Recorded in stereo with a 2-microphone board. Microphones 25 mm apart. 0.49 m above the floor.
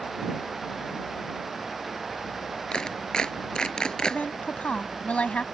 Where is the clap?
30° left (ahead or behind).